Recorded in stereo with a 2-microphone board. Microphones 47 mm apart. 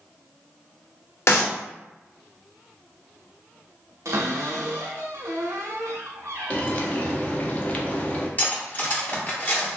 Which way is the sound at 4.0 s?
80° right.